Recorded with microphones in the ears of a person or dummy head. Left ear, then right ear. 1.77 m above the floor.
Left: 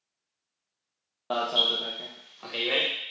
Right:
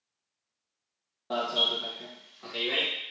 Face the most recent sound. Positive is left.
turn(degrees=30)  # may be behind; listen again after turning